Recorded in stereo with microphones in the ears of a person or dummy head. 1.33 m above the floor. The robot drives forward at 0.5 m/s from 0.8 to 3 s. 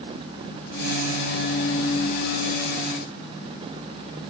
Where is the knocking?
I don't hear knocking.